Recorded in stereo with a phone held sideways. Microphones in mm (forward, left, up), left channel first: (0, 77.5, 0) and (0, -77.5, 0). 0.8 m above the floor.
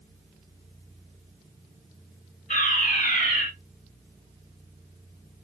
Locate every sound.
2.5 s a fire alarm: 50° left (ahead or behind), 6 m